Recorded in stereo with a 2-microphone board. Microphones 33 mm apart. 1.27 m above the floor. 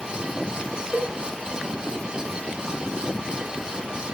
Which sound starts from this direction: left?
A cowbell, at 0.9 s.